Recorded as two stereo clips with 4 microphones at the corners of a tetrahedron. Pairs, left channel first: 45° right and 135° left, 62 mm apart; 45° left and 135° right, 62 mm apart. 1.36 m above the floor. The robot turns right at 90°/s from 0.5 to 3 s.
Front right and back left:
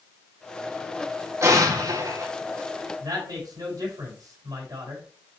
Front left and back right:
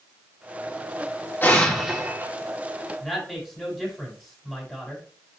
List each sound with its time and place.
1.4 s an explosion: 100° left, 3.5 m; by 2.3 s straight behind, 3.5 m
3.0 s a woman speaking: 130° left, 5.5 m